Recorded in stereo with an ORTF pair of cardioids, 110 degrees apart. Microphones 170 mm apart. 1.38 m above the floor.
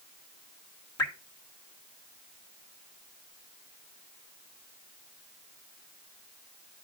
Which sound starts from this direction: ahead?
Dripping, at 1.0 s.